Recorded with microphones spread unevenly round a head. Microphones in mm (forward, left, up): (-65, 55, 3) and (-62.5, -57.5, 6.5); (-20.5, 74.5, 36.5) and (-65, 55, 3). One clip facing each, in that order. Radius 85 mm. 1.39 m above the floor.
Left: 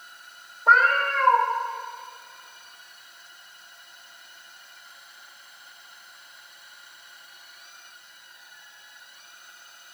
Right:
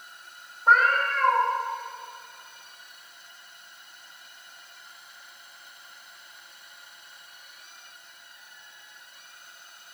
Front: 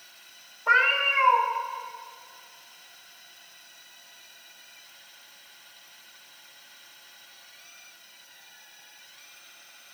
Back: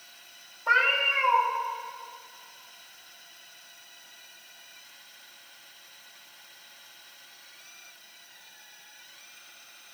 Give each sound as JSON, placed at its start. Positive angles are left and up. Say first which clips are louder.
{"t": 0.7, "sound": "a cat meowing", "louder": "left 1 dB, front 2 dB", "azimuth_deg": 85, "distance_m": 1.6}